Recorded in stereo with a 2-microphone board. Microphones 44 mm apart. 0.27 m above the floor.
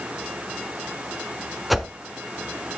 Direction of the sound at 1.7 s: Centre (ahead or behind).